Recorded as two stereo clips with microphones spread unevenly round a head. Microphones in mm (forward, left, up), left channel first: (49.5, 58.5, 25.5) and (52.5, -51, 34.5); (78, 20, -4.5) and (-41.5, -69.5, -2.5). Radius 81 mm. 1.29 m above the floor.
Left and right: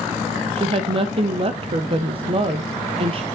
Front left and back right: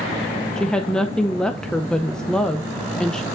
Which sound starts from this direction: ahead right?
A woman speaking, at 0.6 s.